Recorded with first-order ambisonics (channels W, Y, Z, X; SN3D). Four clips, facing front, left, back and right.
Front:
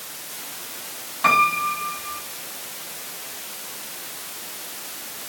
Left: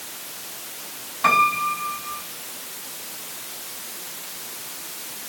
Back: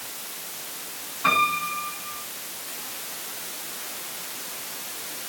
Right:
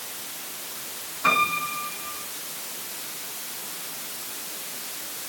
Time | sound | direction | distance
1.2 | a piano | 35° left | 7.5 m